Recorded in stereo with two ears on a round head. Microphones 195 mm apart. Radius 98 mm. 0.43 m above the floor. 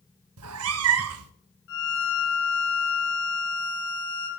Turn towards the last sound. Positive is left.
turn(degrees=70)  # may be behind; listen again after turning